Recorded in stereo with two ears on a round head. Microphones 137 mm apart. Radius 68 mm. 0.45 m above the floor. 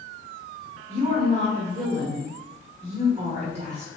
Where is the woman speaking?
45° right (ahead or behind), 1.2 m.